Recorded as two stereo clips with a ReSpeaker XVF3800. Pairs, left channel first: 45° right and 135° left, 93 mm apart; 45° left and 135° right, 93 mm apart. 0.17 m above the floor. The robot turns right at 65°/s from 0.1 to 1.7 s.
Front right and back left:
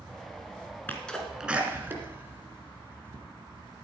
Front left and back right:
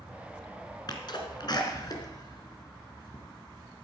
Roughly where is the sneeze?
Ahead.